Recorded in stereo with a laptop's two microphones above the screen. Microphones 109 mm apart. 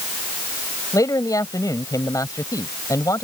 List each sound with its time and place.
0.9 s a man speaking: 30° left (ahead or behind)